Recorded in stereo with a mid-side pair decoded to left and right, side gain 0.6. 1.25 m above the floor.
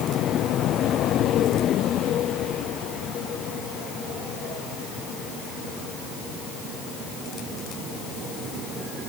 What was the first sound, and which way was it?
Only background noise.